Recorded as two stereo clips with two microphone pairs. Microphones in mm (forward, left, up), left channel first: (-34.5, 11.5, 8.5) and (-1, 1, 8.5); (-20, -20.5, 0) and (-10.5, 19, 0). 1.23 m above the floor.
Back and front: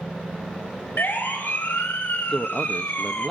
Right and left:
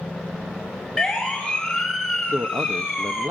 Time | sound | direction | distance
1.0 | a siren | 175° left | 7.5 m
2.3 | a man speaking | 80° left | 1.1 m